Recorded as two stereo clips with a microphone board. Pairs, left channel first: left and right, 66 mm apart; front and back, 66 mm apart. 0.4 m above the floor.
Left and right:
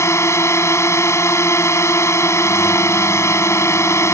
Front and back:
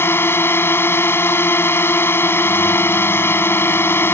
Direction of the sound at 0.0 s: 50° left.